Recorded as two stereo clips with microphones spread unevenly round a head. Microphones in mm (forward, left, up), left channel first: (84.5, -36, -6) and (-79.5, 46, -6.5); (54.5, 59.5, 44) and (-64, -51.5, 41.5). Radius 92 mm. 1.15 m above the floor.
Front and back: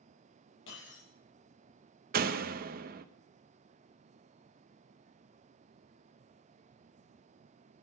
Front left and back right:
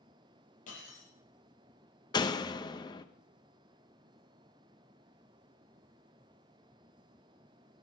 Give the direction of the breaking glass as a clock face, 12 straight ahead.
12 o'clock.